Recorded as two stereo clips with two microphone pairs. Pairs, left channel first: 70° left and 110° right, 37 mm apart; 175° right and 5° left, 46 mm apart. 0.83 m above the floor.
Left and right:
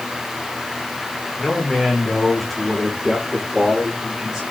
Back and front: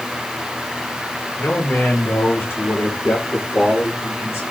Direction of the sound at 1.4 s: 145° left.